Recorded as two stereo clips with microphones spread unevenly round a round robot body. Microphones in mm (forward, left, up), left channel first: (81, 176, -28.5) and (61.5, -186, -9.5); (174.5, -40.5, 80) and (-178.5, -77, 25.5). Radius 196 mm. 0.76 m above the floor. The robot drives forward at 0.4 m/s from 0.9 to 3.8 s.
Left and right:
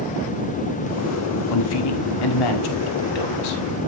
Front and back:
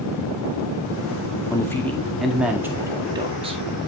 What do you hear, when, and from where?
1.5 s a man speaking: 90° left, 1.9 m; by 3.6 s 115° left, 2 m